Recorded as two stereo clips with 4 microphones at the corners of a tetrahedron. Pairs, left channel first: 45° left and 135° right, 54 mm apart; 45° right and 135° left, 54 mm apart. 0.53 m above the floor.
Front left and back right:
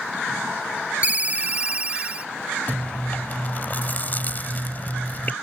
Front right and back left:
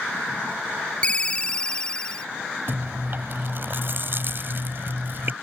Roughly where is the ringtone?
Right.